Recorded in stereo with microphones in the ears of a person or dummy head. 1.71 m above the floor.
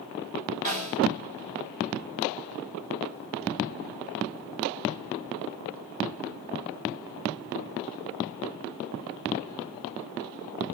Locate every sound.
0.7 s a snare drum: 40° right (ahead or behind), 7.5 m